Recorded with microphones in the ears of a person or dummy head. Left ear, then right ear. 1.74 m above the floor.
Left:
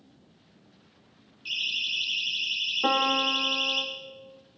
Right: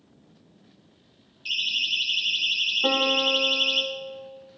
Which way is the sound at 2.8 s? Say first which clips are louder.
Even; 75° left (ahead or behind).